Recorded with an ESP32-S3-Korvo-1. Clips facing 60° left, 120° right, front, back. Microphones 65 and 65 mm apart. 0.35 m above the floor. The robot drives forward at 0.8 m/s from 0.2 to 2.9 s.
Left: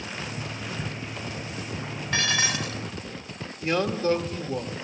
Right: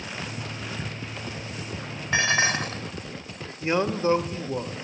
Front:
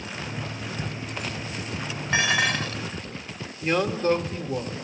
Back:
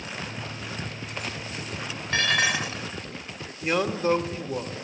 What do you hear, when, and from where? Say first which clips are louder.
2.1 s dishes clattering: right 4 dB, front 1 dB; 65° right, 0.8 m; by 2.8 s 125° right, 0.8 m
3.6 s a man speaking: right 1 dB, front 1 dB; 110° right, 1.0 m